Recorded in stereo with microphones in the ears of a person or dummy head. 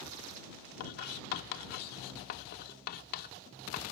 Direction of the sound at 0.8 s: 55° left (ahead or behind).